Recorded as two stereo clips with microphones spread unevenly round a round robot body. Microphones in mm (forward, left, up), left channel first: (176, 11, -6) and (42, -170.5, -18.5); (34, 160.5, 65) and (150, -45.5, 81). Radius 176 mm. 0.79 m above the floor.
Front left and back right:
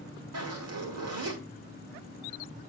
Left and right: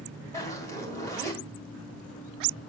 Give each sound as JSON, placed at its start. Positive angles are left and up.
{"t": 0.3, "sound": "a zipper", "azimuth_deg": -130, "distance_m": 2.0}